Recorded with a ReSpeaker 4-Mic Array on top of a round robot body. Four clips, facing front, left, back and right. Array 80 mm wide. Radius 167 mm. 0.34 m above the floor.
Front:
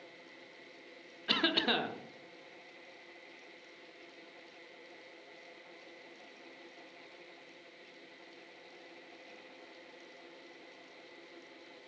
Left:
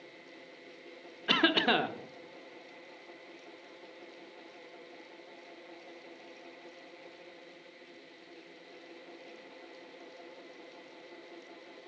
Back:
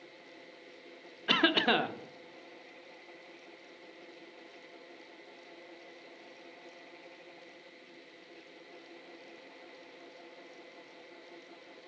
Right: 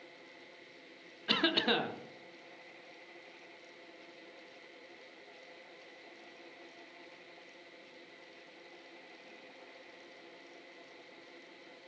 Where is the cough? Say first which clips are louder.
Left 4 dB, back 5 dB; 140° left, 1.2 m.